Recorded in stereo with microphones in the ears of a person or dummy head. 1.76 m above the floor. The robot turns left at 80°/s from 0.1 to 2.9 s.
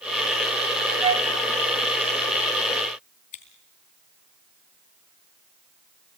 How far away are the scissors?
About 3.5 m.